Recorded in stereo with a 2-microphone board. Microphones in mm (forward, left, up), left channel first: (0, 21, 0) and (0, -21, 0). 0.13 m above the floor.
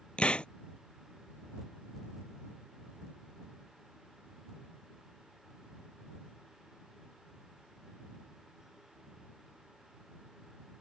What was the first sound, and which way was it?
A hiss, 30° left (ahead or behind).